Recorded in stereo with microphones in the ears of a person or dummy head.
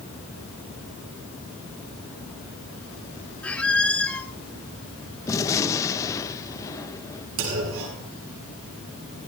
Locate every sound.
3.4 s a squeak: 5° left (ahead or behind), 1.7 m
5.3 s a gunshot: 20° left (ahead or behind), 1.1 m
7.4 s a clunk: 75° right (ahead or behind), 7.5 m